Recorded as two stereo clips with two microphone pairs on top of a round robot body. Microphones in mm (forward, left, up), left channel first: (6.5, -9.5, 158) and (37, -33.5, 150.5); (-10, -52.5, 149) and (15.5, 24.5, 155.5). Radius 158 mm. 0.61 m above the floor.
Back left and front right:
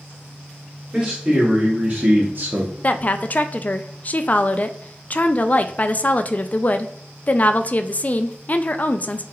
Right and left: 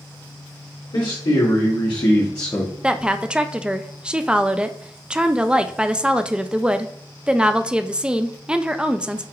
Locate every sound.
0.9 s a man speaking: 115° right, 2 m; by 2.7 s 35° right, 1.0 m
2.8 s a woman speaking: 150° left, 0.5 m